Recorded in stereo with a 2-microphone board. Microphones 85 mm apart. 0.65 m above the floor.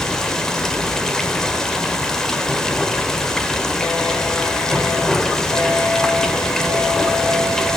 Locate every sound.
0.0 s running water: 10° left (ahead or behind), 1.7 m